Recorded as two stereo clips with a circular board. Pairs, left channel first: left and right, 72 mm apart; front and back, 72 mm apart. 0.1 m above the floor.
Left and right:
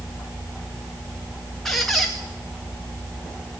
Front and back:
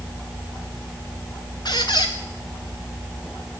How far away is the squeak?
About 2.0 m.